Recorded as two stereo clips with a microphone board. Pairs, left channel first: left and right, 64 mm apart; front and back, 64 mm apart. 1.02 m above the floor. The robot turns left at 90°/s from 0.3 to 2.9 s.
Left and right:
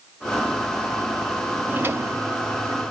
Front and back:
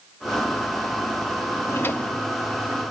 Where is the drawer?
30° right, 0.7 m; by 2.8 s 130° right, 0.7 m.